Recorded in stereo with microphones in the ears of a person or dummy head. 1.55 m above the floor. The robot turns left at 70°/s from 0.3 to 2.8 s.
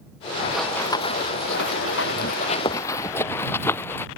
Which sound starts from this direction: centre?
Running footsteps, at 0.5 s.